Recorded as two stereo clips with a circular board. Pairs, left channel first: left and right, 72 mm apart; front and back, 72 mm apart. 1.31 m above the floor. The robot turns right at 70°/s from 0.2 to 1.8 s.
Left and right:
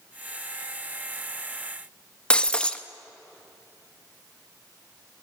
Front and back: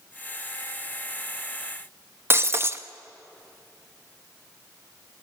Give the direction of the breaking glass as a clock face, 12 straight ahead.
7 o'clock.